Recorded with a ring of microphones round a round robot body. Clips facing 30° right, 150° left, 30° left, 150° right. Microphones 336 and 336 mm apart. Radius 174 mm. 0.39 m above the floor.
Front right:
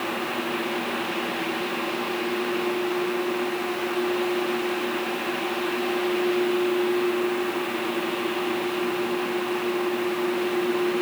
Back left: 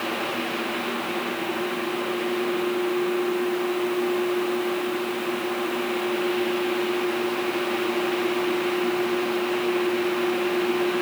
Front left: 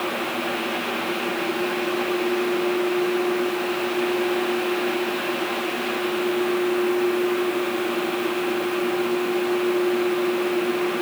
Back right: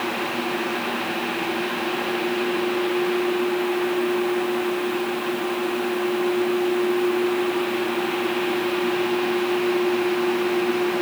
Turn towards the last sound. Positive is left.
No sound to turn to.